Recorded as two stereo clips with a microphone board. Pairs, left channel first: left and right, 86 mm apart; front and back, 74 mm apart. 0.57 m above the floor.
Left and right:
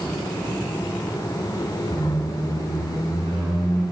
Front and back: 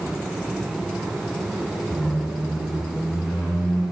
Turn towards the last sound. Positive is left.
turn(degrees=-110)